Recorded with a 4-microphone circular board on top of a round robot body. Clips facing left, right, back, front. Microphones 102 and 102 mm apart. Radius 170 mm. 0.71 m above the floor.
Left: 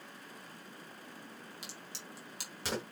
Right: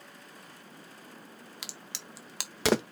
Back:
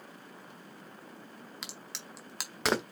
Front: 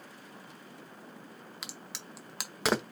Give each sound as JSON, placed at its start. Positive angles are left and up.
{"t": 1.6, "sound": "a crack", "azimuth_deg": -90, "distance_m": 0.5}